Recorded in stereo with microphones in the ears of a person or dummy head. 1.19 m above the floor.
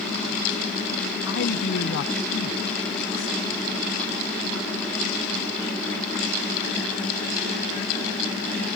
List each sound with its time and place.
1.3 s a man speaking: 60° left (ahead or behind)